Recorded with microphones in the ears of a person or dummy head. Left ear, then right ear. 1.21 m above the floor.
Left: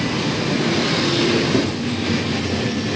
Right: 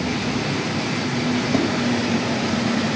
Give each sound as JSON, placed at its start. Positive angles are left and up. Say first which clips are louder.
{"t": 1.5, "sound": "tapping", "louder": "left 1 dB", "side_deg": -25, "distance_m": 1.2}